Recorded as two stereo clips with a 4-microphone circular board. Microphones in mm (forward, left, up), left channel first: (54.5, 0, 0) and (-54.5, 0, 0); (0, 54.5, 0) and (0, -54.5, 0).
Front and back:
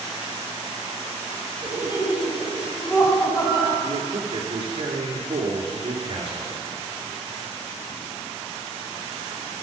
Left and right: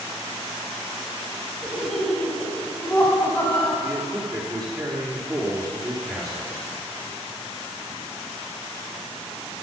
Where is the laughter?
175° right, 1.5 m; by 3.7 s 30° left, 1.9 m.